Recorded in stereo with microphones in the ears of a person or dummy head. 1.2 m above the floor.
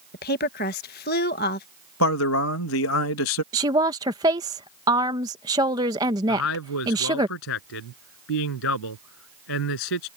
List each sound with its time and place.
0.1 s a woman speaking: 45° left (ahead or behind)
2.0 s a man speaking: 75° left (ahead or behind)
3.5 s a woman speaking: 20° right (ahead or behind)
6.3 s a man speaking: 75° left (ahead or behind)